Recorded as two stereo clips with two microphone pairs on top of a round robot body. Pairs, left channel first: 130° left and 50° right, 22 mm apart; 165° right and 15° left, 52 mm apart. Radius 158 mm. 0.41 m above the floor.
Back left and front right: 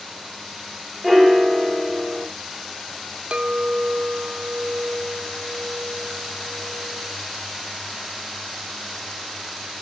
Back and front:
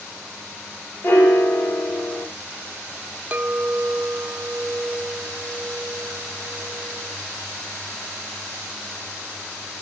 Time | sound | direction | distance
1.0 | a piano | 130° right | 1.5 m
3.3 | a clink | 35° right | 0.6 m